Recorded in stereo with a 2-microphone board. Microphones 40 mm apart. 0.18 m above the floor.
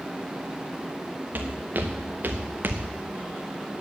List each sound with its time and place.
1.3 s footsteps: 55° right (ahead or behind), 1.7 m; by 2.9 s 60° right (ahead or behind), 0.9 m